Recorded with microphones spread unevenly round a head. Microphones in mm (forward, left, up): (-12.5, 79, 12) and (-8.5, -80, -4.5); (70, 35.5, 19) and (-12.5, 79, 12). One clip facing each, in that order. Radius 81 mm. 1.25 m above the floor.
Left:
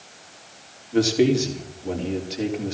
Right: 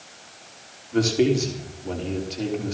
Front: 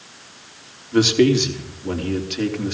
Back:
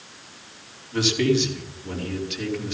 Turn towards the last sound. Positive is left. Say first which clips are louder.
# left 1 dB, front 6 dB
turn(degrees=10)